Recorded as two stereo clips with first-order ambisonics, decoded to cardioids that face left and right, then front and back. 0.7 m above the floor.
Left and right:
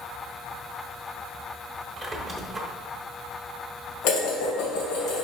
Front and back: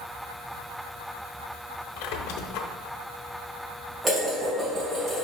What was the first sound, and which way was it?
A squeak, 10° right.